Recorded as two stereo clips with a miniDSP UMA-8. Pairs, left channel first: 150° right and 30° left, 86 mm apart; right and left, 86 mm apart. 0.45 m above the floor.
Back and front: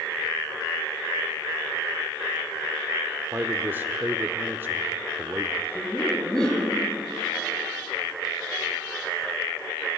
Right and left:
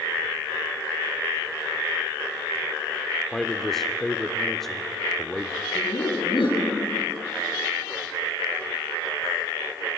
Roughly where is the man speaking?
Ahead.